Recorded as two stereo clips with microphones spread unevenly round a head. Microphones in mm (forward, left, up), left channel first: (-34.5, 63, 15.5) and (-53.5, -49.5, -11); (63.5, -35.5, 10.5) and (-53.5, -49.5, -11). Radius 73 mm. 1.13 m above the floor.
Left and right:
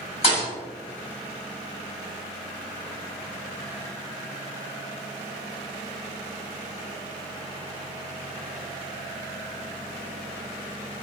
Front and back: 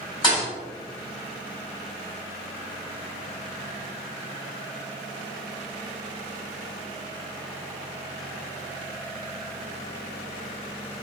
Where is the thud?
50° left, 1.3 m.